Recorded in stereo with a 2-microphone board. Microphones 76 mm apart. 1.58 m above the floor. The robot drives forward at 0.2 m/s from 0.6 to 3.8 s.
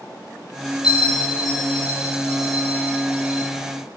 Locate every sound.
0.8 s a bell: 70° left (ahead or behind), 3.5 m